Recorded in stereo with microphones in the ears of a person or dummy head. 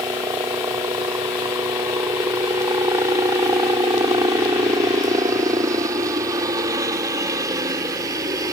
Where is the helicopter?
15° right (ahead or behind); by 8.5 s 20° right (ahead or behind).